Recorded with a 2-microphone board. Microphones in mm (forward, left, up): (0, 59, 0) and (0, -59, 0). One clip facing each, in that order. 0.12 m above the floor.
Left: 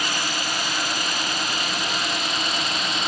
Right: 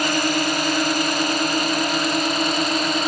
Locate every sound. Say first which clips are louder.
0.0 s a drone: right 8 dB; 50° right (ahead or behind); by 3.1 s 45° right (ahead or behind)